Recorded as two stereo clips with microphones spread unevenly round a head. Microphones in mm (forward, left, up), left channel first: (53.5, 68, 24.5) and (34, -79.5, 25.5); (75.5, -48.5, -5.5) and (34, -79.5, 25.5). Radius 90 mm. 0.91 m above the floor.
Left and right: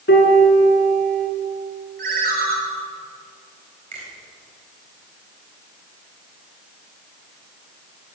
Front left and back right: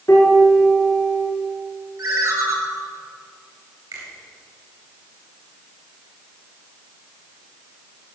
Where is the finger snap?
150° right, 3.5 m.